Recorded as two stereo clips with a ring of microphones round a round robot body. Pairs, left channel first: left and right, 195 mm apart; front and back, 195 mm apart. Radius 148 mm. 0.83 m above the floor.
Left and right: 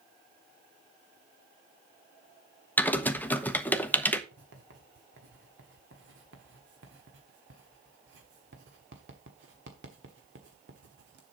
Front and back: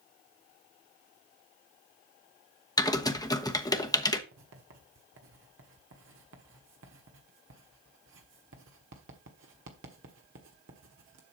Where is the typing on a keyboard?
25° left, 1.0 m.